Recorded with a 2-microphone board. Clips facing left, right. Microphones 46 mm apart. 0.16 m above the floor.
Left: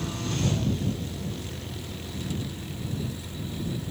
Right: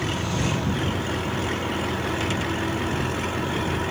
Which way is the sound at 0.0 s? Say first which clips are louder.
Right 4 dB; 70° right (ahead or behind).